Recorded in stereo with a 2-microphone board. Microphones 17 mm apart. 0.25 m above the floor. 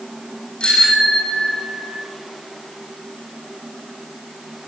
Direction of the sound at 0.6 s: 65° left (ahead or behind).